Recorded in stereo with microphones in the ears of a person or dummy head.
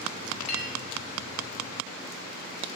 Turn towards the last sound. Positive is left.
turn(degrees=30)  # may be behind; listen again after turning